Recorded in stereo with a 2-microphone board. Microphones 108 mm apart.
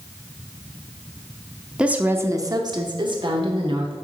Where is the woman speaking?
10° right (ahead or behind), 0.8 m; by 3.9 s 55° right (ahead or behind), 1.6 m.